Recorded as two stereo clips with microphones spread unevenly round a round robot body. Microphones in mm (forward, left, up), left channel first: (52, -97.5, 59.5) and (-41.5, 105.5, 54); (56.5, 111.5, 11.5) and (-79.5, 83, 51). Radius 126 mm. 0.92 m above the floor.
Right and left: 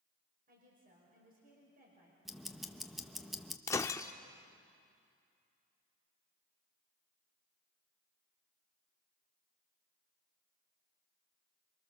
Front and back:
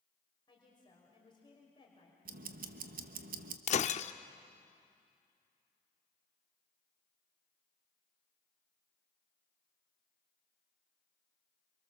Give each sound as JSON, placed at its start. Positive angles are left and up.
{"t": 0.5, "sound": "a woman speaking", "azimuth_deg": 65, "distance_m": 5.5}
{"t": 2.2, "sound": "ticking", "azimuth_deg": -155, "distance_m": 1.1}
{"t": 3.7, "sound": "breaking glass", "azimuth_deg": 0, "distance_m": 0.5}